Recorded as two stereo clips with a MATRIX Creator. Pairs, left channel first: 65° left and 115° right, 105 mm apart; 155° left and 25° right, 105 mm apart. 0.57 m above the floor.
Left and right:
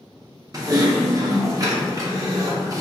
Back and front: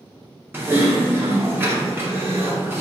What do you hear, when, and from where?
0.5 s typing on a keyboard: 80° right, 0.7 m